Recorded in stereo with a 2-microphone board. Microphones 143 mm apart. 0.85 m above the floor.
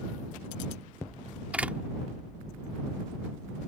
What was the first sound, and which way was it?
A door slam, 10° right (ahead or behind).